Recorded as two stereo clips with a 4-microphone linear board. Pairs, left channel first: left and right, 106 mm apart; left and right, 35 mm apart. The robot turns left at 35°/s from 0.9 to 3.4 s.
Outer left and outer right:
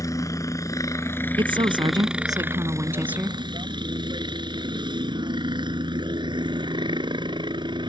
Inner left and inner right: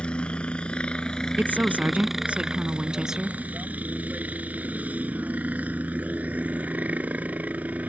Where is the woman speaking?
100° right; by 3.4 s 170° right.